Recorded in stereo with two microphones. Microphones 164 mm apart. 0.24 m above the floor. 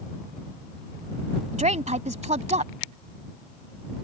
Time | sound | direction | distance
1.5 | a woman speaking | 45° right (ahead or behind) | ?